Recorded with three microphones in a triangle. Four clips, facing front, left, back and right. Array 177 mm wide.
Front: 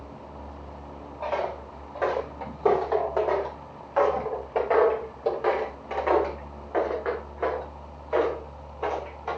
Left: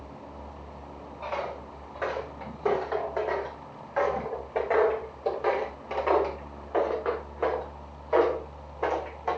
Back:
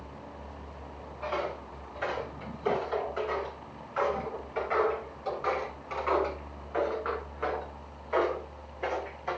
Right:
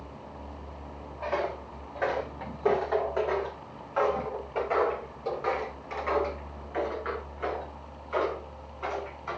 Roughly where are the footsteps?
Ahead.